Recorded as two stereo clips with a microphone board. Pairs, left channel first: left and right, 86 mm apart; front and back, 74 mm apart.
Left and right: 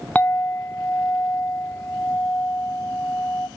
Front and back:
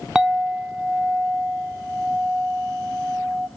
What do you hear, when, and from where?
0.1 s a clink: 115° left, 0.7 m